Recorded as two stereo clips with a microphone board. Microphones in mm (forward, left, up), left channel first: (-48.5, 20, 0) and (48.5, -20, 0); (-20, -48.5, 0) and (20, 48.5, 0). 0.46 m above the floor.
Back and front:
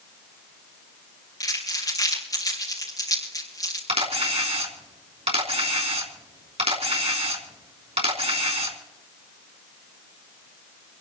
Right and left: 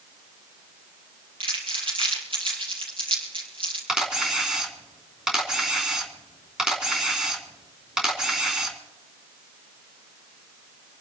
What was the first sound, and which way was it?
Crumpling, 100° left.